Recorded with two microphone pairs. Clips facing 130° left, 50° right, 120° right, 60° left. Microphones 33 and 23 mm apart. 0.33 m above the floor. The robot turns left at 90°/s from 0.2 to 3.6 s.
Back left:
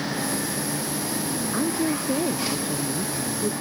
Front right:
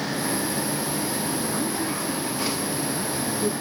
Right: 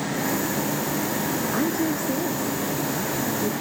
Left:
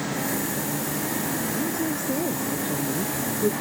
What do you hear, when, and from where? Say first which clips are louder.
1.5 s a woman speaking: back left 2 dB, right 3 dB; 160° right; by 3.5 s 25° left